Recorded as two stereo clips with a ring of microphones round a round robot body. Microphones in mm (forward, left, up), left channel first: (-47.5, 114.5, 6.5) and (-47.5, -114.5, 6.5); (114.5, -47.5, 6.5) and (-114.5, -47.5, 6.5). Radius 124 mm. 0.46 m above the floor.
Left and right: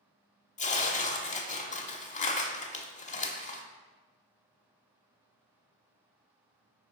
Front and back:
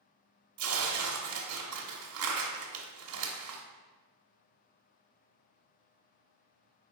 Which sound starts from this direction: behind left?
Tearing paper, at 0.6 s.